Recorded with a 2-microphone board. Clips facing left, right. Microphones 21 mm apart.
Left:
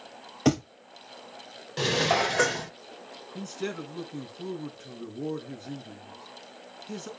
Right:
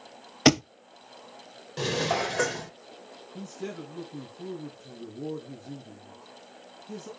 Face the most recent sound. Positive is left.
turn(degrees=65)  # may be behind; listen again after turning